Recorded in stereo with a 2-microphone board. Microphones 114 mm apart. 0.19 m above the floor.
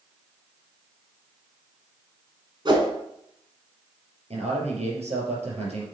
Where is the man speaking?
75° right (ahead or behind), 3.5 m.